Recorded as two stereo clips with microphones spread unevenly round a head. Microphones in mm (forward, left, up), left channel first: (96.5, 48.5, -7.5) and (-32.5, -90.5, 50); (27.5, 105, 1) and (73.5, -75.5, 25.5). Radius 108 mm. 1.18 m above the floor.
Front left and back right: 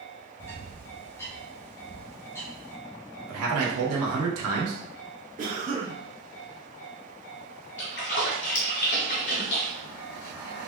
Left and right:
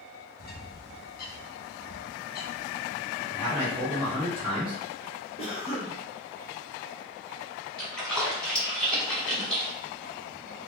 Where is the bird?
140° left, 0.5 m.